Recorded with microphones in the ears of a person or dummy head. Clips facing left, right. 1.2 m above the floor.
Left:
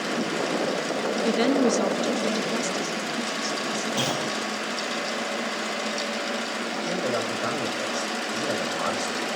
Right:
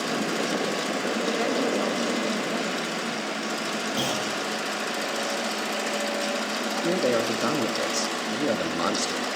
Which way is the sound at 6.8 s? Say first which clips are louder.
Right 5 dB; 45° right (ahead or behind).